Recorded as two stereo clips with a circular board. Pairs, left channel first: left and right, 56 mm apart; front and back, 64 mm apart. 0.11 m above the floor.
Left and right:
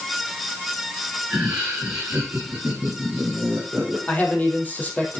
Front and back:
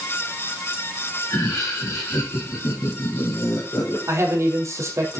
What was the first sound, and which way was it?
Laughter, 5° right.